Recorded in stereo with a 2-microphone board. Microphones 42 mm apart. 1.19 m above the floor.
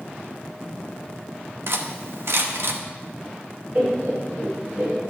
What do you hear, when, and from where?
1.7 s cutlery clinking: 65° right (ahead or behind), 0.8 m
3.8 s laughter: 45° right (ahead or behind), 4.5 m